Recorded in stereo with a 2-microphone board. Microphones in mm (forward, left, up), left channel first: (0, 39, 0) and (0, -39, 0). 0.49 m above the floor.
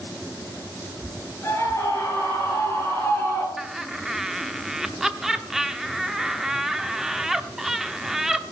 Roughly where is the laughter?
Centre.